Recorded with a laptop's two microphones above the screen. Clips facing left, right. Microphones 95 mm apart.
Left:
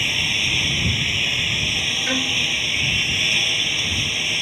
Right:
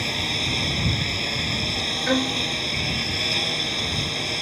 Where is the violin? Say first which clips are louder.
Right 4 dB; 20° right (ahead or behind).